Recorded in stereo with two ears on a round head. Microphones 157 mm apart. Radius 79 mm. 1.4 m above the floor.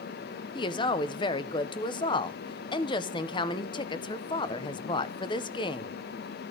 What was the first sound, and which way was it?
A woman speaking, 30° left (ahead or behind).